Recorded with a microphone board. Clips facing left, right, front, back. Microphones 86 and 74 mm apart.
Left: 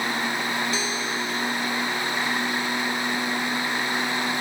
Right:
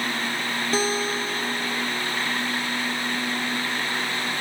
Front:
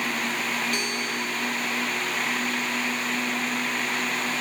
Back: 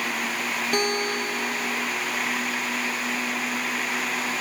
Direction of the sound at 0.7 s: 140° right.